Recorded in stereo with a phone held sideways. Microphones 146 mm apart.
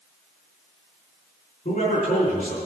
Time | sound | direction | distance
1.6 | a man speaking | 70° left (ahead or behind) | 4 m